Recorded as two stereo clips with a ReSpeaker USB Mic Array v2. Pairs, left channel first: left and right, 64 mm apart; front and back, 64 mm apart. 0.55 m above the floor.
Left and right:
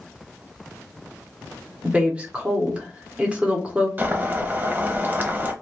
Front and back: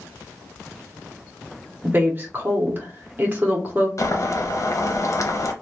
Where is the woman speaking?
150° right, 1.0 m.